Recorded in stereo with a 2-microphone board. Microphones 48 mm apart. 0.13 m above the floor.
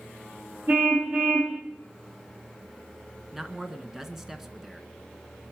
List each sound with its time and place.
0.7 s a car horn: 45° right (ahead or behind), 6.5 m
3.3 s a man speaking: 10° right (ahead or behind), 1.5 m